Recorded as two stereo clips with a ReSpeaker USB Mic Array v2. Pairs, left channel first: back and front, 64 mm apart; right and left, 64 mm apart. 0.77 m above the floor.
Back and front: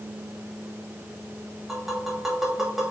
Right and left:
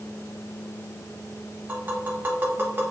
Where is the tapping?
85° left, 1.0 m.